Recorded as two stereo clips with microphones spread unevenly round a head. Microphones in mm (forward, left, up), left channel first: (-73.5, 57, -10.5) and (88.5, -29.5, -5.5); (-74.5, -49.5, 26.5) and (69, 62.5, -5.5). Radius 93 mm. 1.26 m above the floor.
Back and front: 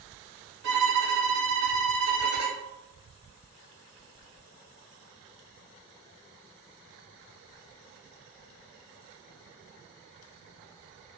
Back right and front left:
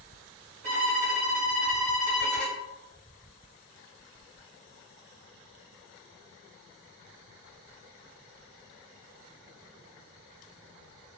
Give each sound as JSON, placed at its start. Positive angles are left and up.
{"t": 0.6, "sound": "a violin", "azimuth_deg": -5, "distance_m": 1.2}